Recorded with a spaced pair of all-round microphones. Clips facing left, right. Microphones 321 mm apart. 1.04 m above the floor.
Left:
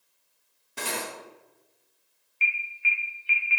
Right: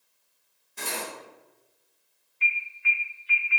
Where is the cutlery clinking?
75° left (ahead or behind), 0.7 m.